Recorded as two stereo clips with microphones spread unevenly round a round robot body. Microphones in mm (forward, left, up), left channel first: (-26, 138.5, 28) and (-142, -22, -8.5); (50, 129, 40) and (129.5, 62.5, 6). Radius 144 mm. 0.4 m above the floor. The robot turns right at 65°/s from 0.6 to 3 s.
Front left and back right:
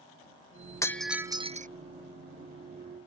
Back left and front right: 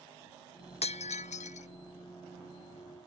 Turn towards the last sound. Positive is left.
turn(degrees=-90)